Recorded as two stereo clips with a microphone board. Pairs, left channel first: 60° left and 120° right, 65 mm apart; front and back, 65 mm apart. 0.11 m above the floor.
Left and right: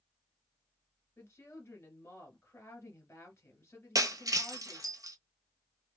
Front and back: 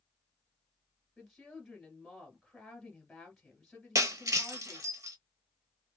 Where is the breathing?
No breathing in this recording.